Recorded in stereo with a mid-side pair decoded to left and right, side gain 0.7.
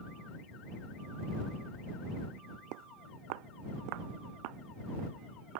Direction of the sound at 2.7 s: 65° right.